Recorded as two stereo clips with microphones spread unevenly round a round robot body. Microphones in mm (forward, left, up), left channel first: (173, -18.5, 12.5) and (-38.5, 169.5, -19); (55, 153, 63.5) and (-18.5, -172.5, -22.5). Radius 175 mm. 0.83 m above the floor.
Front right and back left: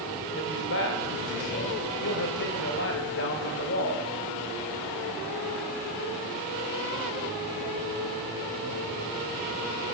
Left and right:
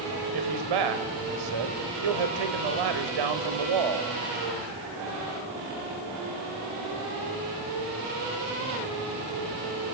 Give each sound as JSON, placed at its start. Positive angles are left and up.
{"t": 0.3, "sound": "a man speaking", "azimuth_deg": -100, "distance_m": 3.5}